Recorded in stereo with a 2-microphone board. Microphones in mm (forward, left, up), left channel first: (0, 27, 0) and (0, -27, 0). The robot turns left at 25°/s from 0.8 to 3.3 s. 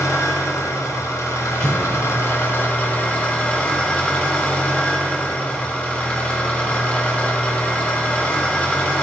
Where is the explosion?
20° left (ahead or behind), 1.7 m; by 2.1 s 30° left (ahead or behind), 1.7 m.